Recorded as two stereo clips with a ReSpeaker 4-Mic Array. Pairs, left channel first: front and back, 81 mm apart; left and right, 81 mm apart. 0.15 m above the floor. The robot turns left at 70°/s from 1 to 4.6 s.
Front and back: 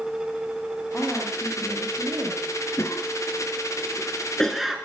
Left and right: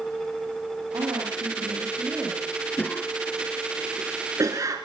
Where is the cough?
35° left, 2 m; by 4.8 s 95° right, 2 m.